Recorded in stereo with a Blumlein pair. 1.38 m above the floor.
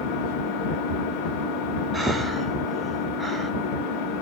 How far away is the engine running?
About 1.7 m.